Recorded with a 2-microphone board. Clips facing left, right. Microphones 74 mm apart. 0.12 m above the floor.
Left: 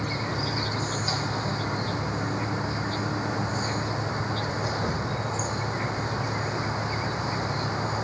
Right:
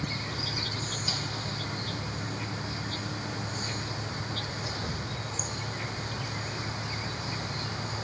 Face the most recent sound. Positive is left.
turn(degrees=35)  # may be behind; listen again after turning